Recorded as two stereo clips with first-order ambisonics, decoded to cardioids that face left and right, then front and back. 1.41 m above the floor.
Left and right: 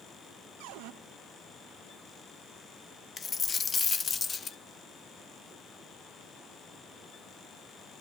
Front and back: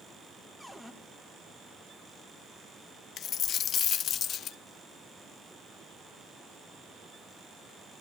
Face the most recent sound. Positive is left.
turn(degrees=35)